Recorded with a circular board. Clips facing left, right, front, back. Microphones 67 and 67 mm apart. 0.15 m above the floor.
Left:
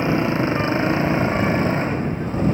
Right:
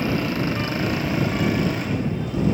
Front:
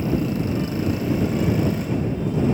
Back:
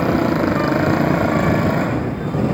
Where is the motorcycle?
155° left; by 2.5 s 145° left.